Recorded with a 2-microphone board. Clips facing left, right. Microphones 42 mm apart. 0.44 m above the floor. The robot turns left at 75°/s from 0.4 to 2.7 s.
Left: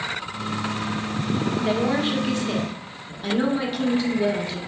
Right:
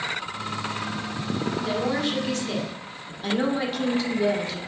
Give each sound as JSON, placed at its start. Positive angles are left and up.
{"t": 1.6, "sound": "a woman speaking", "azimuth_deg": 95, "distance_m": 0.9}